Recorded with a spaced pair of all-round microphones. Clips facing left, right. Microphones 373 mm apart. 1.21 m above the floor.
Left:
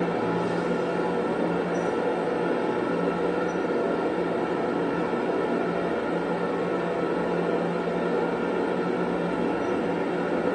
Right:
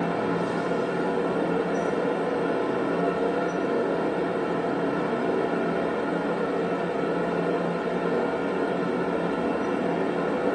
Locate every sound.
0.0 s a fan: 25° right (ahead or behind), 1.6 m